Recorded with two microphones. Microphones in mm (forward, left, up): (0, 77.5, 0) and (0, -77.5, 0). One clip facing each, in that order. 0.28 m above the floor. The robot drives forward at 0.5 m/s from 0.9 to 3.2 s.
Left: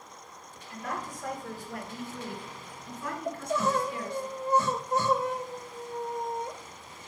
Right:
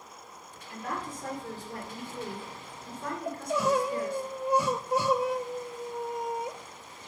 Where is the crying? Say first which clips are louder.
Right 1 dB; 10° right (ahead or behind), 0.7 m.